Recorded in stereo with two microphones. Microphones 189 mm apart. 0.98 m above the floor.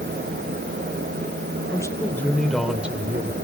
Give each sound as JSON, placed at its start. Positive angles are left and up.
{"t": 1.7, "sound": "a man speaking", "side_deg": 20, "distance_m": 3.0}